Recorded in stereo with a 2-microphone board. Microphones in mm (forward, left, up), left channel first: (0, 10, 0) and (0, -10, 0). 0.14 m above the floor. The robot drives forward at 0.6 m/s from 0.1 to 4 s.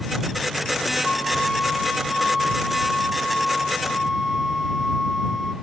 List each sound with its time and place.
1.0 s a flute: 5° right (ahead or behind), 4.5 m; by 5.5 s 10° right (ahead or behind), 2.5 m